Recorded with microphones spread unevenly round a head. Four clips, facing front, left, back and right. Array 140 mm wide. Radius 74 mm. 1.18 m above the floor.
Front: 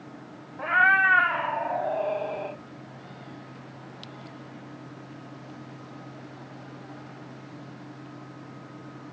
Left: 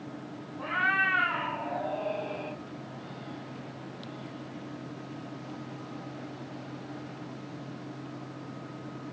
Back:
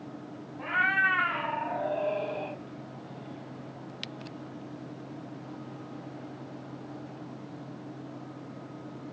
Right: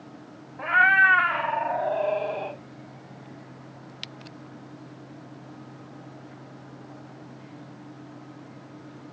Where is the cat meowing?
40° right, 3 m; by 2.6 s 55° right, 4 m.